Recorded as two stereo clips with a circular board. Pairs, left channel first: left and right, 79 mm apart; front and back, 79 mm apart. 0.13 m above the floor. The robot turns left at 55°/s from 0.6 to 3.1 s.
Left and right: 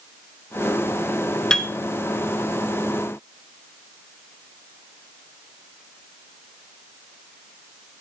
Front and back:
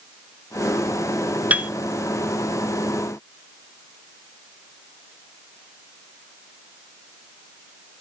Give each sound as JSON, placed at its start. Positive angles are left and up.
{"t": 1.5, "sound": "a piano", "azimuth_deg": 155, "distance_m": 0.7}